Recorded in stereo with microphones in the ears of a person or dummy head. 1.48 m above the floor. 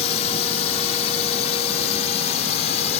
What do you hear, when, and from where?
0.0 s a drone: 35° left (ahead or behind); by 3.0 s 40° left (ahead or behind)